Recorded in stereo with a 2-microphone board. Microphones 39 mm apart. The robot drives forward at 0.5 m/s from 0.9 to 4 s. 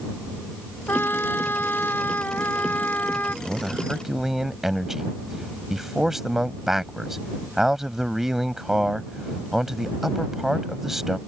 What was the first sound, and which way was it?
A trumpet, 65° left (ahead or behind).